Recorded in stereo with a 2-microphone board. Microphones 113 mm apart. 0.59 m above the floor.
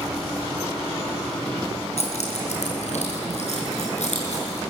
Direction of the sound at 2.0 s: 75° left (ahead or behind).